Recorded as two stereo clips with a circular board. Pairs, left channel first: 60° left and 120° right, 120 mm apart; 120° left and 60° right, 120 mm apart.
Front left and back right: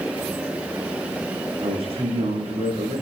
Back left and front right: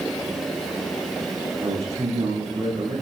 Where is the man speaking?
85° right, 8.5 m.